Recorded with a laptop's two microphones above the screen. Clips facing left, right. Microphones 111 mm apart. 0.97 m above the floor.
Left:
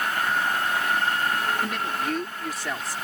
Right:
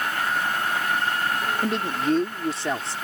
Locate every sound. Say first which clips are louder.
1.6 s a man speaking: right 4 dB; 30° right (ahead or behind)